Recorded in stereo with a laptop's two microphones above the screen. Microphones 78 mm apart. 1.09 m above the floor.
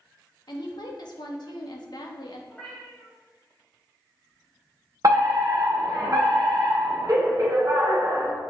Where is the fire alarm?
50° right (ahead or behind), 1.8 m.